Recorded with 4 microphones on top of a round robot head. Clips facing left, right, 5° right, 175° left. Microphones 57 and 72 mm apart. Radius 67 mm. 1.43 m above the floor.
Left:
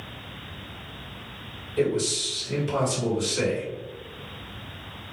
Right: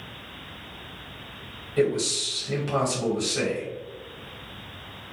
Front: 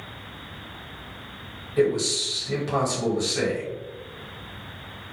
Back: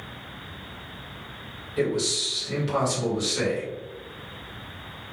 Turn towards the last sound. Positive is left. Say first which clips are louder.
# right 1 dB, front 4 dB
turn(degrees=-65)